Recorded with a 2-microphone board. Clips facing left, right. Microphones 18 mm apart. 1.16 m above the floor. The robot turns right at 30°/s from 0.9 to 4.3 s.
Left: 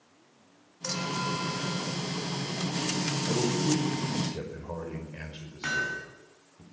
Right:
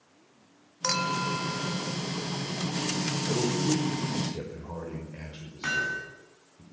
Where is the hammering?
15° right (ahead or behind), 9 m.